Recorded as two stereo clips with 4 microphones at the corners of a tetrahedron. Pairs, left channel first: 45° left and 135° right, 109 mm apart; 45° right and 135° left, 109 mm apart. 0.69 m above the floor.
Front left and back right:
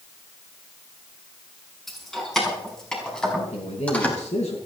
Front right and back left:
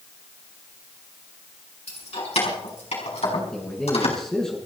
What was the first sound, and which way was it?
Keys jangling, 45° right.